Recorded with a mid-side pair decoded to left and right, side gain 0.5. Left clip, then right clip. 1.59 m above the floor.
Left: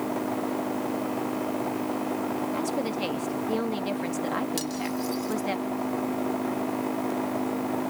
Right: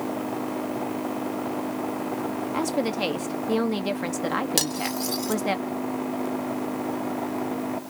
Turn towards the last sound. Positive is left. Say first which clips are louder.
# right 4 dB
turn(degrees=-60)